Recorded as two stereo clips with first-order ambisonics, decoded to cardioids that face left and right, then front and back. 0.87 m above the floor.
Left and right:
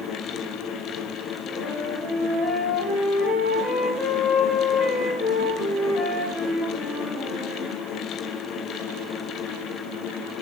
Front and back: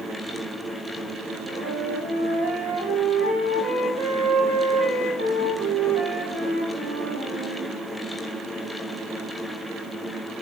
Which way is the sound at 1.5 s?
165° left.